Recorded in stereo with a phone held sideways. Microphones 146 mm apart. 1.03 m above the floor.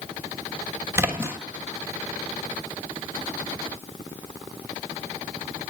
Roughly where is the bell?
No bell in this recording.